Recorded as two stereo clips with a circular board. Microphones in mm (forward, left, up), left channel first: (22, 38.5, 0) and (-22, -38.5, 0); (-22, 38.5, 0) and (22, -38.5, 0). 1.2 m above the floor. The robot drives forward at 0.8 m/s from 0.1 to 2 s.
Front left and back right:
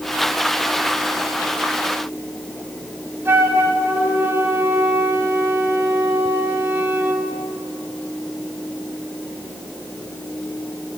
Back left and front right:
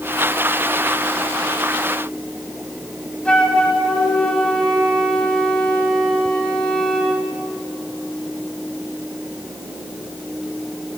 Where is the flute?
165° right, 1.3 m.